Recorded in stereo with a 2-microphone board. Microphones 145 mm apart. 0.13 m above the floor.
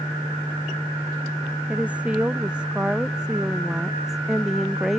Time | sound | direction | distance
1.7 | a woman speaking | 10° right (ahead or behind) | ?